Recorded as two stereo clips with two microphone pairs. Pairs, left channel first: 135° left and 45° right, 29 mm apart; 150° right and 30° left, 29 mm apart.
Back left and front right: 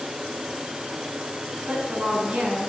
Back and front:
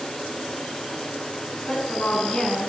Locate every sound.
1.7 s a woman speaking: 85° right, 4 m